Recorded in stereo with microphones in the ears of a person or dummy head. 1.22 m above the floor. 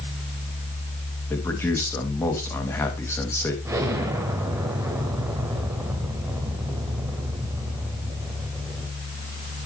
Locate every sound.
1.3 s a man speaking: 15° left (ahead or behind), 2 m
3.6 s an explosion: 10° right (ahead or behind), 1.0 m